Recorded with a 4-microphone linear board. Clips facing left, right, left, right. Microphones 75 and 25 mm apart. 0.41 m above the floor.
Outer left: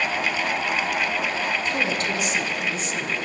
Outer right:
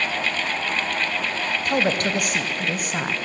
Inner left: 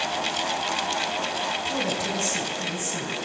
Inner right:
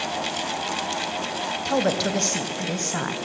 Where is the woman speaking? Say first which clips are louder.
Outer right 3 dB, inner right 4 dB; 55° right (ahead or behind), 3 m.